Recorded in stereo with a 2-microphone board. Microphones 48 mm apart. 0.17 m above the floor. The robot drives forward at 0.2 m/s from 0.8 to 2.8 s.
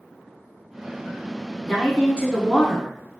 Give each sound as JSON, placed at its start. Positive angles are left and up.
{"t": 1.6, "sound": "a woman speaking", "side_deg": 15, "distance_m": 1.2}